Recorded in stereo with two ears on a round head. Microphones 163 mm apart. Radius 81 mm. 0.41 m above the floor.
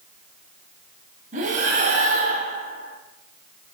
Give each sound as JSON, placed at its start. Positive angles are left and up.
{"t": 1.3, "sound": "breathing", "side_deg": -45, "distance_m": 2.5}